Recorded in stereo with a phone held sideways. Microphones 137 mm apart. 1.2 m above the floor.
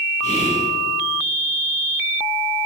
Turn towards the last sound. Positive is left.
turn(degrees=60)  # may be behind; listen again after turning